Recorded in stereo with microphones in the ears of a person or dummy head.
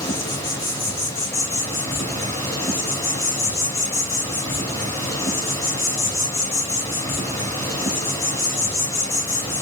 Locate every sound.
0.0 s an insect: 15° left (ahead or behind), 2.0 m